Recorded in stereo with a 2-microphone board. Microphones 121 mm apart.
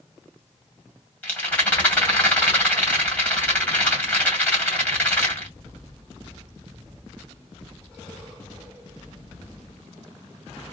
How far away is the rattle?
About 2 m.